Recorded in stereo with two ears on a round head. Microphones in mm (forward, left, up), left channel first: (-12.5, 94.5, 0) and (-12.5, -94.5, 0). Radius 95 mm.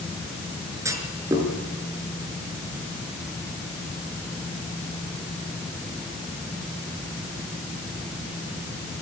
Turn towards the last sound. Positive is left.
turn(degrees=-15)  # may be behind; listen again after turning